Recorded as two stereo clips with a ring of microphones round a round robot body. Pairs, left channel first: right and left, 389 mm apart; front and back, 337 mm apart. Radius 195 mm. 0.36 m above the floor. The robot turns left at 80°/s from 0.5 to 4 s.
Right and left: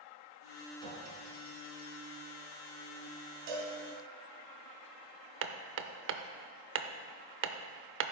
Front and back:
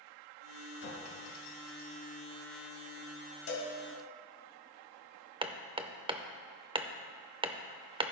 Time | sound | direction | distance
0.8 | a clink | 55° left | 2.5 m
3.5 | a cowbell | 50° left | 1.8 m
5.4 | hammering | 115° left | 0.6 m